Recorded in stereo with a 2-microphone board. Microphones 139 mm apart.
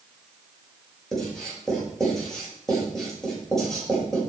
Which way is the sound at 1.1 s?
5° left (ahead or behind).